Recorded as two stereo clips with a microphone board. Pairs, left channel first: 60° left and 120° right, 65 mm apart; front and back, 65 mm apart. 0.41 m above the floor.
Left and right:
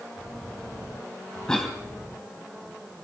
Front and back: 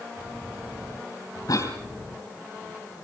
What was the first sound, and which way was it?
A cough, 20° right.